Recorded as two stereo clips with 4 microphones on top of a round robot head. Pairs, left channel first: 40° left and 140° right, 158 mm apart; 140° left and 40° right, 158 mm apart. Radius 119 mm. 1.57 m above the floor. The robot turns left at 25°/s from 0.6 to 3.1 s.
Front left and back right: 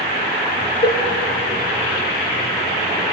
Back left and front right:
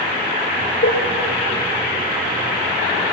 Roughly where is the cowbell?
Left.